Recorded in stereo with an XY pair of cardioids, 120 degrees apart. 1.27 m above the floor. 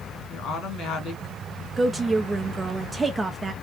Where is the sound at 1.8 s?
20° right, 0.6 m.